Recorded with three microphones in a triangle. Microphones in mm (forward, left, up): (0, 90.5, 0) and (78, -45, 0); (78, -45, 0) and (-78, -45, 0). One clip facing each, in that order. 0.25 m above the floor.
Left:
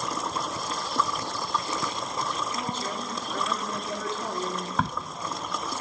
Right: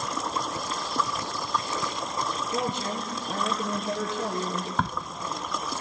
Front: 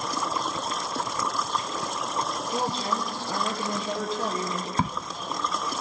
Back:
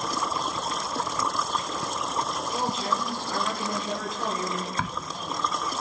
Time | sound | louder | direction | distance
2.5 | a woman speaking | right 3 dB, front 1 dB | 60° right | 5 m
4.8 | a crack | left 1 dB, front 8 dB | 30° left | 0.9 m